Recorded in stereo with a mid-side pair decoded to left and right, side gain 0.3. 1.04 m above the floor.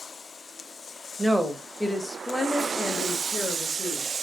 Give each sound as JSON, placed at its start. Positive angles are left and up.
{"t": 1.2, "sound": "a woman speaking", "azimuth_deg": -5, "distance_m": 1.0}